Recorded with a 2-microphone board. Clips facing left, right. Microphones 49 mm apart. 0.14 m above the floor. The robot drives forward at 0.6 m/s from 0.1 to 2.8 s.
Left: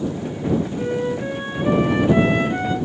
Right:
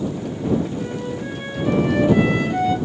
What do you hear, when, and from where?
0.8 s a flute: 30° left (ahead or behind), 1.2 m; by 2.8 s 25° left (ahead or behind), 1.4 m